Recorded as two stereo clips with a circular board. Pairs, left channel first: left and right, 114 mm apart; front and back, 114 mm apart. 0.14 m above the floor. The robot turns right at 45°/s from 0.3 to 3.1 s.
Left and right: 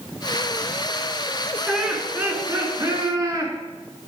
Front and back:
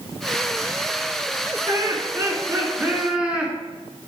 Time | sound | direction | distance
1.7 | laughter | 170° right | 2.0 m